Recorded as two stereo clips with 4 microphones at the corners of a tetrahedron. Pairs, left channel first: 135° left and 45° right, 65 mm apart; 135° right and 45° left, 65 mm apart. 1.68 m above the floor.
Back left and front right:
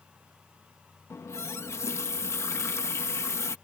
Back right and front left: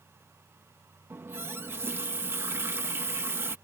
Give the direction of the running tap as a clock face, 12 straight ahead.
9 o'clock.